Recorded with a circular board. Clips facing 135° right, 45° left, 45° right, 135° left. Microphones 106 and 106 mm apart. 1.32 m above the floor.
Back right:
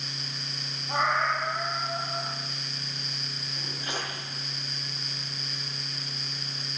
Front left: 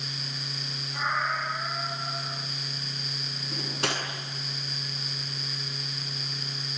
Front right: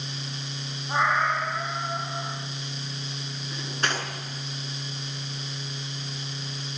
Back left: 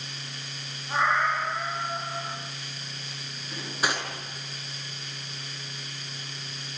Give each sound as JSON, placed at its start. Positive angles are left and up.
{"t": 0.9, "sound": "a cat meowing", "azimuth_deg": -120, "distance_m": 10.0}
{"t": 3.5, "sound": "cutlery clinking", "azimuth_deg": 50, "distance_m": 8.0}